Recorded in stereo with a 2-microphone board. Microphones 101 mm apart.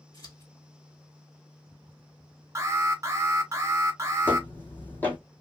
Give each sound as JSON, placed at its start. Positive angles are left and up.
{"t": 0.1, "sound": "scissors", "side_deg": 40, "distance_m": 2.0}
{"t": 2.5, "sound": "an alarm", "side_deg": -30, "distance_m": 1.1}
{"t": 4.2, "sound": "footsteps", "side_deg": 20, "distance_m": 1.9}